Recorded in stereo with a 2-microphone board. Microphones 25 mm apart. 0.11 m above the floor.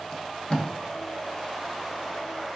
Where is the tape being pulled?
30° left (ahead or behind), 1.1 m.